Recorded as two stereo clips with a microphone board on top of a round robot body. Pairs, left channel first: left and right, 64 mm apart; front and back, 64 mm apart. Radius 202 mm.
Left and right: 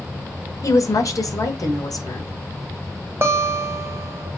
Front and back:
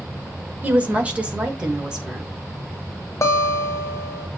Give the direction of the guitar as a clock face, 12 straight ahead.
1 o'clock.